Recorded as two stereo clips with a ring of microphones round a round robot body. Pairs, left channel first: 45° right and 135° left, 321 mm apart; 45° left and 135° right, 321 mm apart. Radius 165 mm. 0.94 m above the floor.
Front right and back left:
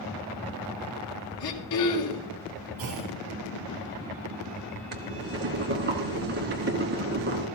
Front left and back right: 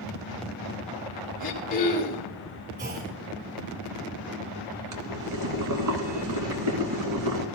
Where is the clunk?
165° left, 9 m.